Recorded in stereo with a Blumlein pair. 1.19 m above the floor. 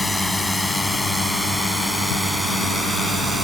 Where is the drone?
5° left; by 3.5 s 5° right.